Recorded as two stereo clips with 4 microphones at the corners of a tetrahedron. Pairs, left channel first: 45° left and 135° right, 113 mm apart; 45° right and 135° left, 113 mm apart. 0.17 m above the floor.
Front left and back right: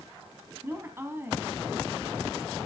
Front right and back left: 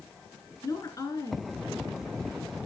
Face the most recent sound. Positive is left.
turn(degrees=-80)